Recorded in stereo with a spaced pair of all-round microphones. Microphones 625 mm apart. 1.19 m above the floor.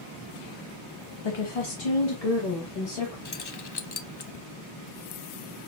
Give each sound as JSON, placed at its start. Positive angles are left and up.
{"t": 1.2, "sound": "a woman speaking", "side_deg": 45, "distance_m": 0.7}
{"t": 3.2, "sound": "keys jangling", "side_deg": 40, "distance_m": 0.5}